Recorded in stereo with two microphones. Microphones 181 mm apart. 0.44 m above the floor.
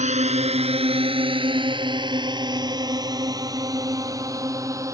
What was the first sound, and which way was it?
A drone, 40° right (ahead or behind).